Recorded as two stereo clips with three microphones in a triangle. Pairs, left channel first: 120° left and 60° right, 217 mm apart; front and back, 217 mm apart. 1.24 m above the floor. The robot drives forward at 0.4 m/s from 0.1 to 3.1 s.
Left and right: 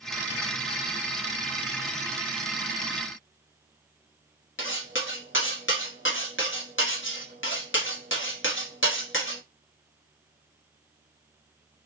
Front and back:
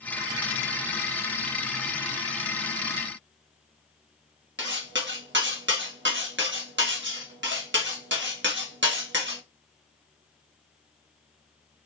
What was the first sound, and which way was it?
Cutlery clinking, 145° left.